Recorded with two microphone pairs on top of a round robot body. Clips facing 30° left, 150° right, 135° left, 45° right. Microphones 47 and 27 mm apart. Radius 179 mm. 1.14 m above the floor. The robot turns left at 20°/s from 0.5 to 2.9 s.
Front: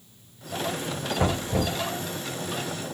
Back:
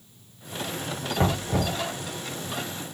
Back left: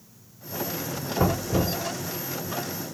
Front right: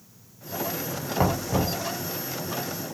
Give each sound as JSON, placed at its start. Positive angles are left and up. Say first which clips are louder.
{"t": 1.2, "sound": "knocking", "louder": "back 1 dB, even", "azimuth_deg": -80, "distance_m": 1.5}